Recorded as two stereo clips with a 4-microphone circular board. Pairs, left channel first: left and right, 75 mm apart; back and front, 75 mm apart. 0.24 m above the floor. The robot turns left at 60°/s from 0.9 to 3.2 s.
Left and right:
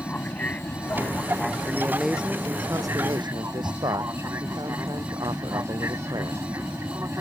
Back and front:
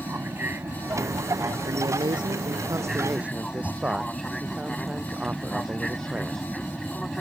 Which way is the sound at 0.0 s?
40° left.